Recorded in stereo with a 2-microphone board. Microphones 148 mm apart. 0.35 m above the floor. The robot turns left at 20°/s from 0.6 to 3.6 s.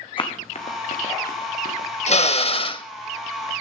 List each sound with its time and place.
0.2 s running footsteps: 35° left (ahead or behind), 1.9 m; by 1.9 s 70° left (ahead or behind), 3 m
2.1 s a drill: 50° left (ahead or behind), 0.5 m; by 2.9 s 35° left (ahead or behind), 0.5 m